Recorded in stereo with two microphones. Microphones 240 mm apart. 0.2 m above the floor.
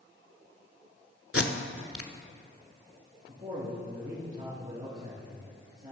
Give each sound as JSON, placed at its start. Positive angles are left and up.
{"t": 1.3, "sound": "tape being pulled", "side_deg": 70, "distance_m": 0.8}
{"t": 3.3, "sound": "a man speaking", "side_deg": -35, "distance_m": 3.0}